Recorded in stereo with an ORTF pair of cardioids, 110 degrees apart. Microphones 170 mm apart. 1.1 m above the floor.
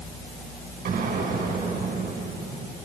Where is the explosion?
60° right, 6 m.